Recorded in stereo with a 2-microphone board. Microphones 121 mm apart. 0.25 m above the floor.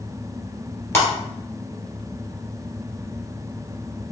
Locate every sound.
0.9 s breaking glass: 20° left (ahead or behind), 1.8 m